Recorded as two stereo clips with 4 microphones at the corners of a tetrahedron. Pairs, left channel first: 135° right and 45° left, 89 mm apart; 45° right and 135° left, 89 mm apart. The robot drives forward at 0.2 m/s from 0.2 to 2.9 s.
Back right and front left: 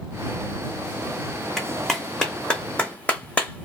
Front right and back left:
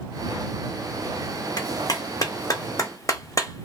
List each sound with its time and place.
1.6 s a clap: 45° right, 1.0 m; by 3.7 s 65° right, 0.9 m